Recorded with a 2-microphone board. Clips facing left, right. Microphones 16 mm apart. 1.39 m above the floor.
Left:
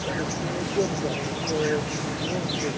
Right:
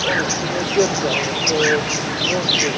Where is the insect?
55° right (ahead or behind).